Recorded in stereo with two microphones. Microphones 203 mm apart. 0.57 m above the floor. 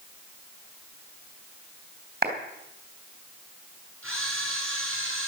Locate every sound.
2.2 s a clap: 45° right (ahead or behind), 3.5 m
4.0 s a camera shutter: 80° right, 7 m